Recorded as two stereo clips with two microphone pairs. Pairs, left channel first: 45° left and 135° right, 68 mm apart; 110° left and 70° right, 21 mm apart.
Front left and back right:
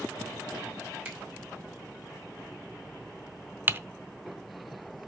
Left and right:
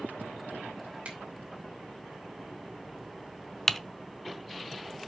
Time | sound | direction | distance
1.1 | a finger snap | 65° right | 2.5 m
3.7 | typing on a keyboard | straight behind | 0.6 m